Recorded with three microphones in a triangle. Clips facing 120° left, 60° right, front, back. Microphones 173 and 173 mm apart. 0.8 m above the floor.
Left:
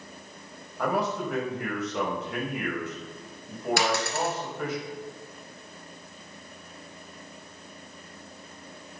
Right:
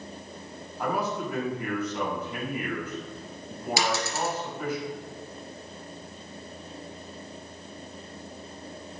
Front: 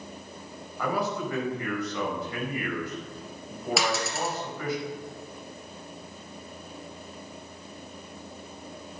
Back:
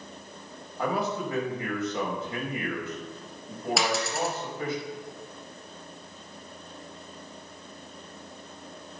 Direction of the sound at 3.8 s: 90° left.